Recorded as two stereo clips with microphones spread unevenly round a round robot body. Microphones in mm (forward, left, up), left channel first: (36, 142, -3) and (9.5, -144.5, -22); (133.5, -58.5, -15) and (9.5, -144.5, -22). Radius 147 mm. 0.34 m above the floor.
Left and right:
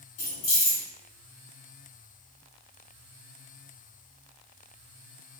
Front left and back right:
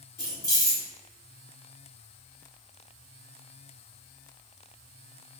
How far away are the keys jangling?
About 1.3 m.